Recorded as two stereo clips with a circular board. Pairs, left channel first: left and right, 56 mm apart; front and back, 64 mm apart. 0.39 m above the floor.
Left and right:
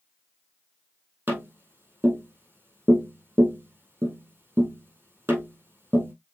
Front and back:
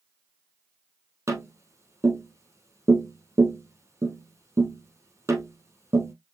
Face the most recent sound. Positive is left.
turn(degrees=-140)